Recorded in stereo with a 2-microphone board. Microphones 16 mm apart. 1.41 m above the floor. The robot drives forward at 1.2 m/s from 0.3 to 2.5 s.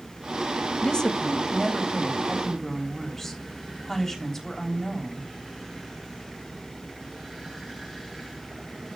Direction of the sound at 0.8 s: 45° left (ahead or behind).